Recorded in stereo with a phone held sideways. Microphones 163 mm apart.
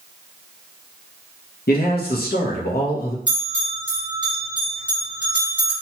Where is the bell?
30° left (ahead or behind), 1.5 m.